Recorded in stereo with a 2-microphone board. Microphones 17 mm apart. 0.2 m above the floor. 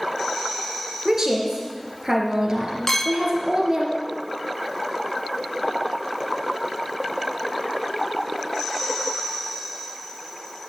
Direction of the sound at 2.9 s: 30° left (ahead or behind).